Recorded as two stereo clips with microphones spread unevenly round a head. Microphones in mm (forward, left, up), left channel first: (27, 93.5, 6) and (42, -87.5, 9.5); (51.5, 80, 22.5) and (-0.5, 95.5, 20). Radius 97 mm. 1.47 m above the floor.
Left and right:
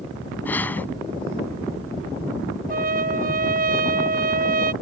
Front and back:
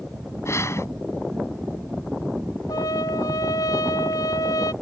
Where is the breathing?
15° left.